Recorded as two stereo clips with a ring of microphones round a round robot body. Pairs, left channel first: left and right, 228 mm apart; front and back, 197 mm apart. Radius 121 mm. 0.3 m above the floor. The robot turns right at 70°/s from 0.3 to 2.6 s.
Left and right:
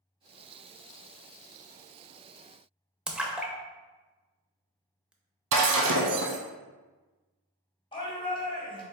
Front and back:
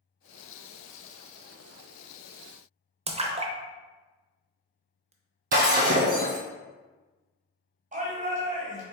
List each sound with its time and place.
3.1 s a splash: 170° right, 0.7 m
5.5 s breaking glass: 125° right, 1.3 m
7.9 s a shout: 150° left, 1.7 m